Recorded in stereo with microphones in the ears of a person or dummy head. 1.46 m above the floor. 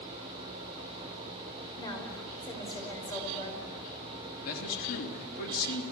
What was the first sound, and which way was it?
A woman speaking, 25° left (ahead or behind).